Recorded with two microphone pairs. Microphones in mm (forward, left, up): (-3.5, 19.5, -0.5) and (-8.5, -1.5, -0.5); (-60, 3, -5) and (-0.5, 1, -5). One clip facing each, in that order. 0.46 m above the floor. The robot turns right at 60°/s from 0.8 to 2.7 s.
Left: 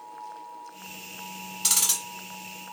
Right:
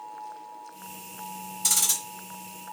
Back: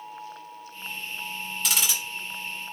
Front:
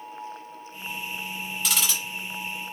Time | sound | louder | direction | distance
1.6 | ticking | left 1 dB, front 1 dB | 90° left | 1.8 m